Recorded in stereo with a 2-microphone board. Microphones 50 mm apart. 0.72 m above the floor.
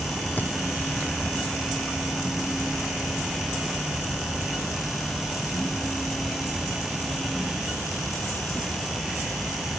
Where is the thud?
35° left (ahead or behind), 2.5 m.